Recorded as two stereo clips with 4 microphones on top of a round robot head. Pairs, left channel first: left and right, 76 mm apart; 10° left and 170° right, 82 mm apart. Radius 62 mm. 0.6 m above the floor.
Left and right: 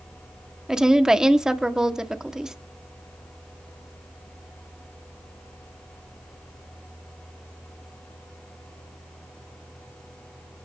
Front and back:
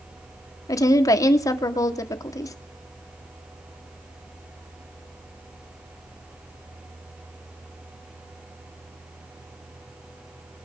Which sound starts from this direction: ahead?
A woman speaking, at 0.7 s.